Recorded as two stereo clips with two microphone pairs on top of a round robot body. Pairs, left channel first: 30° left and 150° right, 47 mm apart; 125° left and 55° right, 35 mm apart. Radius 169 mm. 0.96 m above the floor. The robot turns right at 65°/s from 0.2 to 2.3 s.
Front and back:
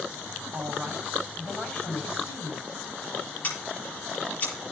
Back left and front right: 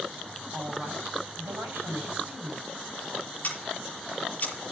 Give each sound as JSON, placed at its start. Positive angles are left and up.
{"t": 0.5, "sound": "a woman speaking", "azimuth_deg": -110, "distance_m": 5.5}
{"t": 3.4, "sound": "scissors", "azimuth_deg": 80, "distance_m": 8.0}